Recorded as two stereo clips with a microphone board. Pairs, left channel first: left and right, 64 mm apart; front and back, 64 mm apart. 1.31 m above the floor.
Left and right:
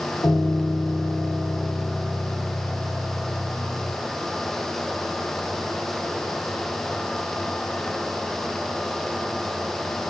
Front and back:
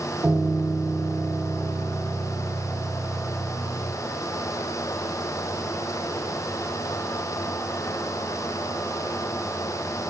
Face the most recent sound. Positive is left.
turn(degrees=115)